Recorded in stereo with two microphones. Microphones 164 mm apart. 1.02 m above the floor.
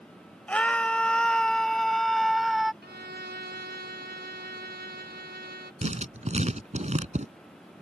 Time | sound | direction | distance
0.5 | a scream | 10° left (ahead or behind) | ?
2.8 | a violin | 80° right | ?
5.8 | writing | 45° right (ahead or behind) | ?